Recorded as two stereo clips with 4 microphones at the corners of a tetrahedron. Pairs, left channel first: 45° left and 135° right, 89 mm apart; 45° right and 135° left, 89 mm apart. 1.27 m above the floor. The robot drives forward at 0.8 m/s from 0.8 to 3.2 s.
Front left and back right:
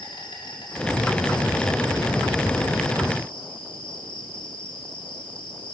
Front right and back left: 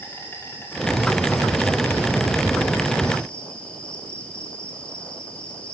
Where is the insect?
20° left, 4.5 m; by 5.7 s 30° left, 3 m.